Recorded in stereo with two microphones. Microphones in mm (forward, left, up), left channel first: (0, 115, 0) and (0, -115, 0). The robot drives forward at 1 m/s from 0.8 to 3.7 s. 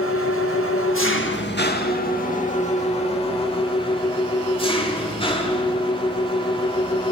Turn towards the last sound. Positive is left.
turn(degrees=25)  # may be behind; listen again after turning